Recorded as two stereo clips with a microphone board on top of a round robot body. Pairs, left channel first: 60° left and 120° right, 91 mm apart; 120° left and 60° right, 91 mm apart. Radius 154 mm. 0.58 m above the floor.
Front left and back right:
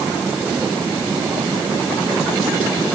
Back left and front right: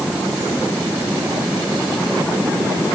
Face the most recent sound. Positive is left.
No sound to turn to.